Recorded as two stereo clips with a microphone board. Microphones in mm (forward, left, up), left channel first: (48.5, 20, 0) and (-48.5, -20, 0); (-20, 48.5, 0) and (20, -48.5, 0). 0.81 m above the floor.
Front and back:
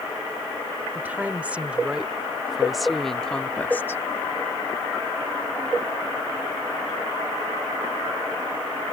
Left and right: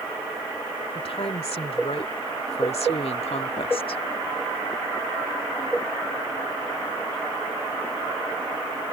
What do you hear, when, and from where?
0.9 s a woman speaking: 130° left; by 4.0 s 85° left